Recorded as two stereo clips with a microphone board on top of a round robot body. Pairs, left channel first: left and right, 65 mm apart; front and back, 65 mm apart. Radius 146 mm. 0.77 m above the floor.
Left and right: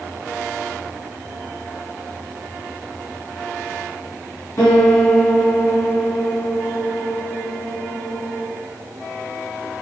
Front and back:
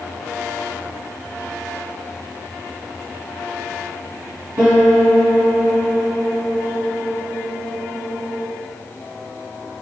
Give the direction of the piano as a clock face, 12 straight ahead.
8 o'clock.